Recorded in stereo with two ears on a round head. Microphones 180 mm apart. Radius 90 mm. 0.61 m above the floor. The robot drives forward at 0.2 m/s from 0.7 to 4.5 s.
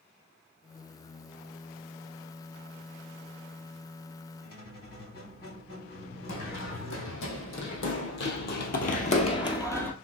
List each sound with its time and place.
4.4 s a squeak: 65° left (ahead or behind), 3 m; by 7.3 s 60° left (ahead or behind), 3 m
6.3 s running footsteps: 75° left (ahead or behind), 2.5 m; by 9.9 s 10° left (ahead or behind), 1.1 m